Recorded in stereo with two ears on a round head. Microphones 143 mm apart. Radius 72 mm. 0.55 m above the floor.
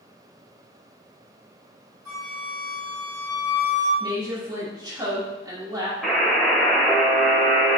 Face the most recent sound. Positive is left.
turn(degrees=0)  # may be behind; listen again after turning